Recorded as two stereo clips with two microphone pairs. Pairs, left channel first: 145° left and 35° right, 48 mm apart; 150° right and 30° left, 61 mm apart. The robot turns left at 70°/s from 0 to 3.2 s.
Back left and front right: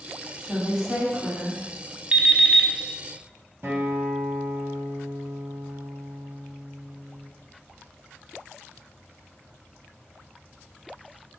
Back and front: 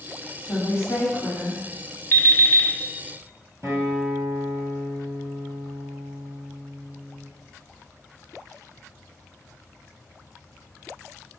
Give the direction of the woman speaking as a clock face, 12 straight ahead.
4 o'clock.